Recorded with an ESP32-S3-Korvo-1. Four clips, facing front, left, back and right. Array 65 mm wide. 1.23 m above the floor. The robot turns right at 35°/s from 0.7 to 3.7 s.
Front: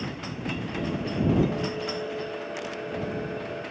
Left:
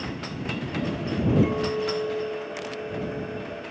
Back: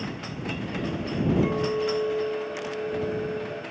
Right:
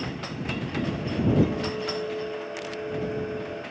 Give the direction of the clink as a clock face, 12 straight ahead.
7 o'clock.